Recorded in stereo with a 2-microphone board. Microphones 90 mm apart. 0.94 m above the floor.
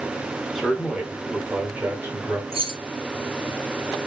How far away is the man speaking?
About 1.6 m.